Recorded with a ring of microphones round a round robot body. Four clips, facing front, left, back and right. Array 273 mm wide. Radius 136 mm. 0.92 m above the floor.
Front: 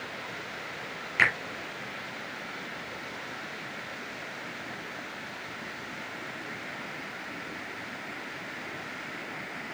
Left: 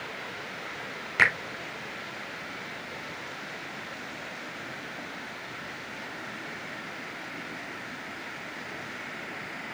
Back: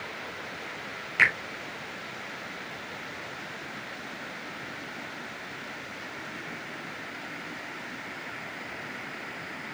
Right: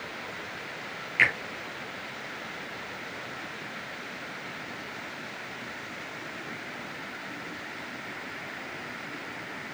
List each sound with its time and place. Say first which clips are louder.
1.2 s a finger snap: left 2 dB, back 1 dB; 90° left, 3.5 m